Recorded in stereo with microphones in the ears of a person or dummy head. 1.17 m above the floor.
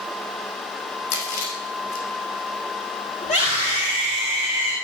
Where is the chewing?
75° left (ahead or behind), 5.5 m.